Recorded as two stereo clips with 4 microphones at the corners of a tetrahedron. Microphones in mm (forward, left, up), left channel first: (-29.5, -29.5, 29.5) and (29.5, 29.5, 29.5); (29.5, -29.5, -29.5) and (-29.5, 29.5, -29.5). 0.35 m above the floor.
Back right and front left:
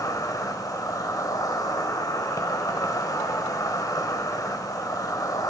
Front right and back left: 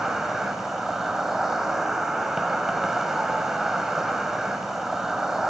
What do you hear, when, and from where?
0.0 s an insect: 140° right, 1.9 m